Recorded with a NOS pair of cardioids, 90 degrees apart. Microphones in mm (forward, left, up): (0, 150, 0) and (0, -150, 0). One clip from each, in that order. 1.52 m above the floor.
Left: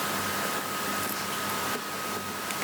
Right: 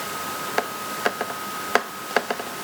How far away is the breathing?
I don't hear breathing.